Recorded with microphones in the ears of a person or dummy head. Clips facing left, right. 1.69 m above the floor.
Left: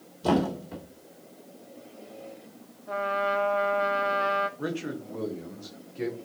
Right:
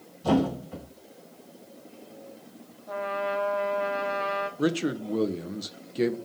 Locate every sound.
0.2 s a thud: 60° left (ahead or behind), 1.9 m
2.9 s a trumpet: 30° left (ahead or behind), 0.6 m
4.6 s a man speaking: 50° right (ahead or behind), 0.5 m